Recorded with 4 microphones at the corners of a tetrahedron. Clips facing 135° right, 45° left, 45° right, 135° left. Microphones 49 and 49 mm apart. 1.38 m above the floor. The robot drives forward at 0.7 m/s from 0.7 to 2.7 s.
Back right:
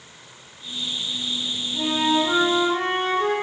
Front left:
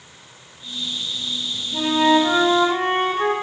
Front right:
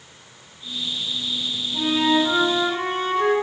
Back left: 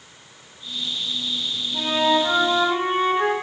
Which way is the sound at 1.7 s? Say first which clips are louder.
Front left 5 dB, even; 60° left.